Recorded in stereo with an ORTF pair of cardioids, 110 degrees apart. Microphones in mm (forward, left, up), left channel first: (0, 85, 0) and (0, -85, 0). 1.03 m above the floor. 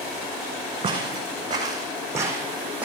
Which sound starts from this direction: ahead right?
Footsteps, at 0.8 s.